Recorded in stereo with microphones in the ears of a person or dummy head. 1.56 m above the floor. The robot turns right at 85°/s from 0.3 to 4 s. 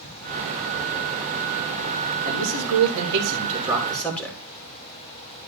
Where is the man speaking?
140° right, 3 m; by 4.4 s 10° left, 3 m.